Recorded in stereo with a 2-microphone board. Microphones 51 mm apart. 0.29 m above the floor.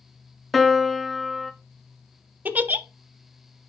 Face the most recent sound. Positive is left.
turn(degrees=-35)  # may be behind; listen again after turning